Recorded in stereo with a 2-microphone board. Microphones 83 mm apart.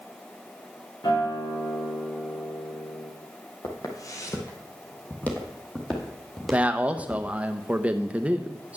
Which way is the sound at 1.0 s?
60° left (ahead or behind).